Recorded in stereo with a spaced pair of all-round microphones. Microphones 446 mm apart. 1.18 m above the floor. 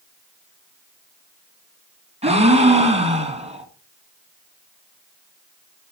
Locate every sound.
2.2 s a gasp: 15° right (ahead or behind), 2.5 m